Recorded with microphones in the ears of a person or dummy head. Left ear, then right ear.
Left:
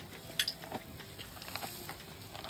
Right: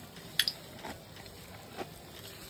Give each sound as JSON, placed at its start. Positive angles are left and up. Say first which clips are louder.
{"t": 0.4, "sound": "dripping", "louder": "right 4 dB", "side_deg": -20, "distance_m": 0.6}